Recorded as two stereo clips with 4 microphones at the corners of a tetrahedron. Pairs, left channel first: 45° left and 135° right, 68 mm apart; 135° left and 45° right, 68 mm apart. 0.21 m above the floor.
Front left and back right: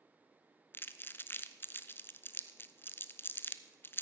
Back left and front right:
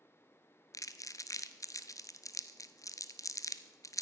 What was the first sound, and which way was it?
Crumpling, 100° left.